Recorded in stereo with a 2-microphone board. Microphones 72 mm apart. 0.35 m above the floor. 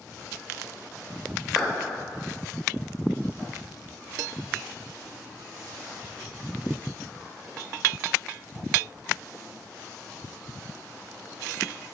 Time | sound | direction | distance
1.6 | a clap | 10° right (ahead or behind) | 0.7 m